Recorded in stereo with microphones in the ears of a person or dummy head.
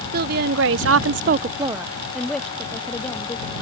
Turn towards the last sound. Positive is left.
turn(degrees=15)  # may be behind; listen again after turning